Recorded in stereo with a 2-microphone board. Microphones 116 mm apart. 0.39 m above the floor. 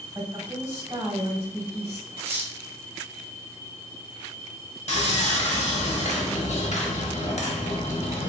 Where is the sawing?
65° left (ahead or behind), 0.8 m.